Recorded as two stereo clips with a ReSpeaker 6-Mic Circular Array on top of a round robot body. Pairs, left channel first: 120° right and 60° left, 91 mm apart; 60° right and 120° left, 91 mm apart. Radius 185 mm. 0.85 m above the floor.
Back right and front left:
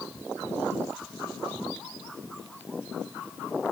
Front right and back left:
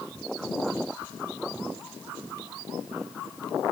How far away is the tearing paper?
No tearing paper in this recording.